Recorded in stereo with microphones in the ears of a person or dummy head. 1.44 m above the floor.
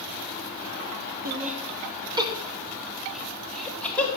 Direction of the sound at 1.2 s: 50° right (ahead or behind).